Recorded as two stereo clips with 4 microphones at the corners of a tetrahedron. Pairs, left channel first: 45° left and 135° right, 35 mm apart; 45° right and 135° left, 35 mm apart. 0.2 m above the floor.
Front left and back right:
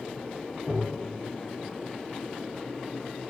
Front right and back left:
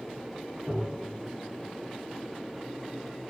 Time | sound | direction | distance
0.7 | tapping | 80° left | 1.2 m